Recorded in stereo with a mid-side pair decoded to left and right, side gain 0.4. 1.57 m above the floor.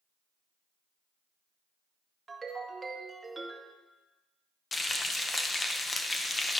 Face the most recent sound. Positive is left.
turn(degrees=30)